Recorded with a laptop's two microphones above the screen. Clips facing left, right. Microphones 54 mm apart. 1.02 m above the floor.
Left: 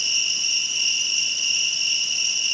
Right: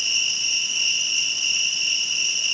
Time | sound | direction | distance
0.0 | an insect | 35° right (ahead or behind) | 1.2 m